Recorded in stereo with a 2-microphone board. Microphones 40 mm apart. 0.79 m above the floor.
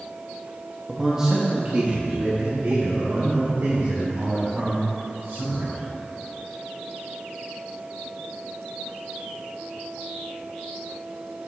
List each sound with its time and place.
0.9 s a man speaking: centre (ahead or behind), 0.8 m; by 5.7 s 80° right, 3.5 m